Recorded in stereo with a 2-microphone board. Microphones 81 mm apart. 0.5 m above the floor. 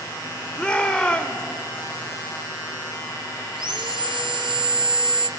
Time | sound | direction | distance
0.6 | a shout | 15° left (ahead or behind) | 1.3 m
3.5 | sawing | 80° right | 1.7 m